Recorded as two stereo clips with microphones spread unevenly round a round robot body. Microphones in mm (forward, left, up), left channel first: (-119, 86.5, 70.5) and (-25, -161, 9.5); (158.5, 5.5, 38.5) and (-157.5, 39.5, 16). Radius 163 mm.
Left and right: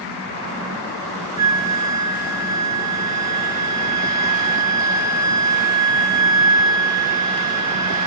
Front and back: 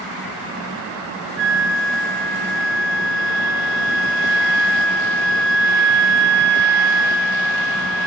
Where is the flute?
140° right, 1.9 m.